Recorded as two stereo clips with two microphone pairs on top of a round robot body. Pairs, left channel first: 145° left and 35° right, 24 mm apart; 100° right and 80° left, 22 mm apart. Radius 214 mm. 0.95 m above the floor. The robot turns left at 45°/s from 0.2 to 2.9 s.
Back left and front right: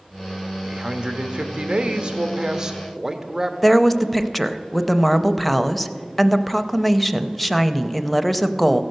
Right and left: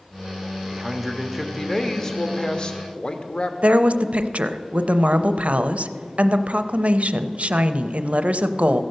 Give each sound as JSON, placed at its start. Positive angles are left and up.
{"t": 0.6, "sound": "a man speaking", "azimuth_deg": 5, "distance_m": 1.1}
{"t": 3.6, "sound": "a woman speaking", "azimuth_deg": 60, "distance_m": 0.6}